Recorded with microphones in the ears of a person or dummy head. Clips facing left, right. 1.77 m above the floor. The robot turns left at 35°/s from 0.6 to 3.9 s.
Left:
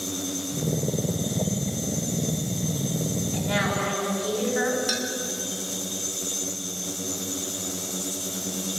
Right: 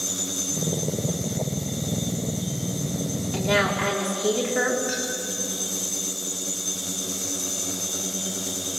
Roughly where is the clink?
Left.